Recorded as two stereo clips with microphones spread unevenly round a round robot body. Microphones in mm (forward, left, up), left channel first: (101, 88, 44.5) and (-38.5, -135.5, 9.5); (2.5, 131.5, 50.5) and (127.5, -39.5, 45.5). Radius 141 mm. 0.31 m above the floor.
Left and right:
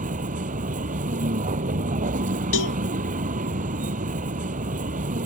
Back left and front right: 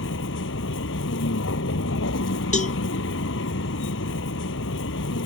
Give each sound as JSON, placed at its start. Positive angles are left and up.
{"t": 0.0, "sound": "a vehicle", "azimuth_deg": 175}
{"t": 2.5, "sound": "a cowbell", "azimuth_deg": 70}